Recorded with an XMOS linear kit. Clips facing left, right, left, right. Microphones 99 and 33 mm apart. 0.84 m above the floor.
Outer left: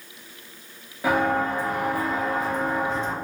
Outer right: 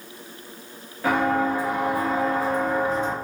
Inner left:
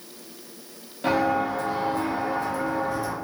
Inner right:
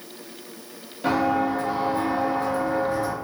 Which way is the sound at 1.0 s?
10° left (ahead or behind).